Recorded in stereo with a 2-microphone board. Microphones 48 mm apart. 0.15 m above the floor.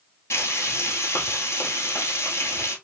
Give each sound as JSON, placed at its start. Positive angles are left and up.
{"t": 0.3, "sound": "frying", "side_deg": 75, "distance_m": 1.4}